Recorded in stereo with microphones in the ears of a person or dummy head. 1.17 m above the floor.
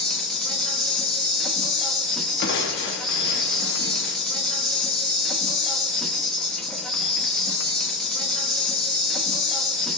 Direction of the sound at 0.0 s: 5° left (ahead or behind).